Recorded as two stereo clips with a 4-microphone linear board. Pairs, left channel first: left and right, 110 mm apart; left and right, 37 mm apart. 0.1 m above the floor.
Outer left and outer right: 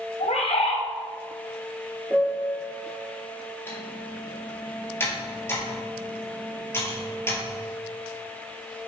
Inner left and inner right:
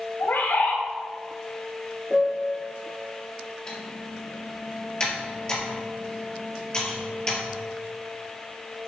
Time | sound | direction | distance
0.2 | a bird | 80° left | 2 m
2.1 | a piano | 5° right (ahead or behind) | 0.8 m
3.7 | typing on a keyboard | 25° left (ahead or behind) | 2.5 m